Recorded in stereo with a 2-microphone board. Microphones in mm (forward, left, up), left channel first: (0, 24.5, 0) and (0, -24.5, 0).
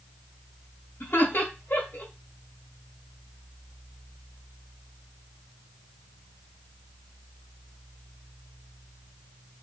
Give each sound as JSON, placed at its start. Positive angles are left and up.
{"t": 1.0, "sound": "laughter", "side_deg": 50, "distance_m": 1.6}